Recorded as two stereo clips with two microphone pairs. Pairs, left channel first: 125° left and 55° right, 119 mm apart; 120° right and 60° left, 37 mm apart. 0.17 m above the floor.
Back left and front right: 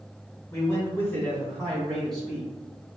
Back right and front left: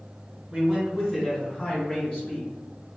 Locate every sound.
0.5 s a man speaking: 115° left, 1.7 m; by 2.5 s 140° right, 2 m